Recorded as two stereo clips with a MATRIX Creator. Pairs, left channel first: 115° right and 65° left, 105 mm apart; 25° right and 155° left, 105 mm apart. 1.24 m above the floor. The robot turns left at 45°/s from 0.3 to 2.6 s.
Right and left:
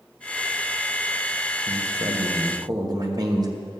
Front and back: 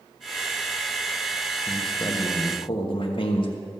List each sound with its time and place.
1.7 s a man speaking: 55° left, 1.3 m; by 3.5 s 15° left, 1.3 m